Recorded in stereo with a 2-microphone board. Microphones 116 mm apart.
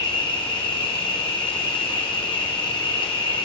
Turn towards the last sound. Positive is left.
turn(degrees=55)  # may be behind; listen again after turning